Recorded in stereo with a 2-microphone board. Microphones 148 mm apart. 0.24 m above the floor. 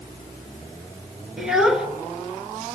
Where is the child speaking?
5° right (ahead or behind), 3 m.